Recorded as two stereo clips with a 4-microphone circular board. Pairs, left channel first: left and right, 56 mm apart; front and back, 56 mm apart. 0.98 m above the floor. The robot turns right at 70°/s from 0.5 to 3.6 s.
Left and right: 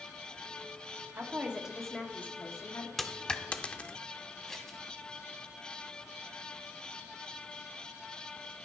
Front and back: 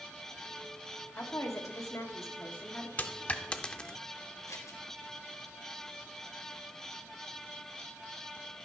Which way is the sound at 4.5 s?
10° left.